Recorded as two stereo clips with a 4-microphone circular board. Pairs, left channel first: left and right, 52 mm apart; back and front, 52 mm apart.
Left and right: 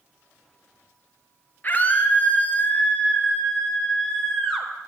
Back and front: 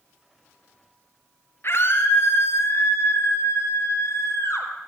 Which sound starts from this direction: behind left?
A scream, at 1.6 s.